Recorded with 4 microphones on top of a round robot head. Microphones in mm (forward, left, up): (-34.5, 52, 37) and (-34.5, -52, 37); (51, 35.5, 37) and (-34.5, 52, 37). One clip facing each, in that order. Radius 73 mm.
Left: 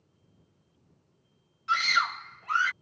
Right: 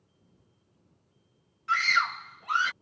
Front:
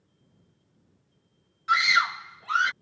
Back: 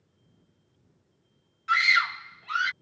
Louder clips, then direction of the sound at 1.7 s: Even, front 1 dB; 45° left.